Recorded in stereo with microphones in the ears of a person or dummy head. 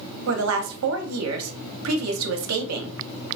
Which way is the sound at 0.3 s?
80° right.